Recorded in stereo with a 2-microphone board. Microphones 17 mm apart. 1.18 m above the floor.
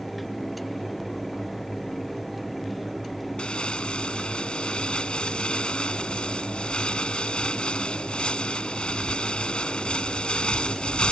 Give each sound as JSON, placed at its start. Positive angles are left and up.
{"t": 3.4, "sound": "crumpling", "side_deg": 85}